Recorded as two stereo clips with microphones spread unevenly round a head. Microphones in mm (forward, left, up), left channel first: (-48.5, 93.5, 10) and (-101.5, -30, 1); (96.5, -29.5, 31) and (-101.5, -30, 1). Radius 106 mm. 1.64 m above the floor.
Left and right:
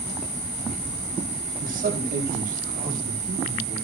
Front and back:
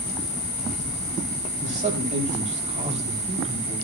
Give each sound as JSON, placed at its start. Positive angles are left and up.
{"t": 1.6, "sound": "a man speaking", "azimuth_deg": -125, "distance_m": 9.0}